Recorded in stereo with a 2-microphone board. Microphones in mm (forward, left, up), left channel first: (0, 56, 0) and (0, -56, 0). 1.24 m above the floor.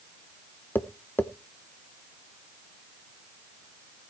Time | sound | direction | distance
0.8 | tapping | 20° left (ahead or behind) | 0.9 m